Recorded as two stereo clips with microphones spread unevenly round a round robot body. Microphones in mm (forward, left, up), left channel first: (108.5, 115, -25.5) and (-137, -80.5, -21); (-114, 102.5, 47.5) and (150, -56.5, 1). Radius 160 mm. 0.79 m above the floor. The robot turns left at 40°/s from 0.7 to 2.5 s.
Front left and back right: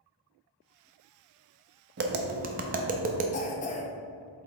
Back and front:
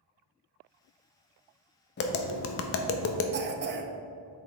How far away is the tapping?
About 0.5 m.